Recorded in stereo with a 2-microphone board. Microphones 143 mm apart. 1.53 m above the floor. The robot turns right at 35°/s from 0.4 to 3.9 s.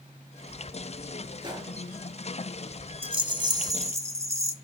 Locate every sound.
1.4 s a gunshot: 30° right (ahead or behind), 4.5 m; by 1.7 s 20° right (ahead or behind), 4.5 m
3.0 s a rattle: 60° right, 1.3 m; by 4.5 s 30° right, 1.3 m